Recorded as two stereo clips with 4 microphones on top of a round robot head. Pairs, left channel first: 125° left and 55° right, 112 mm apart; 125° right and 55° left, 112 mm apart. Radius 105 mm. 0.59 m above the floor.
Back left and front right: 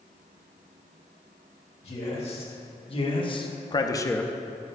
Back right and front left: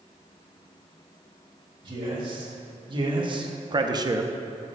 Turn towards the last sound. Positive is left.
turn(degrees=-40)